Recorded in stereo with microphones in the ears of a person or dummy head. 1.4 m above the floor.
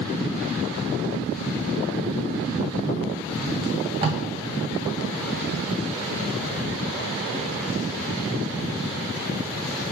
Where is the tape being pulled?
30° right (ahead or behind), 0.6 m.